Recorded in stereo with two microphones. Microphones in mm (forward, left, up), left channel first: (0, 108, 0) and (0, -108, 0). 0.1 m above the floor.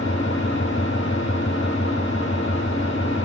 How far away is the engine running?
About 1.8 m.